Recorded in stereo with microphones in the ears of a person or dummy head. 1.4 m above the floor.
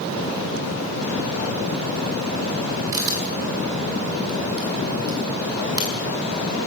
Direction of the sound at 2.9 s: 10° right (ahead or behind).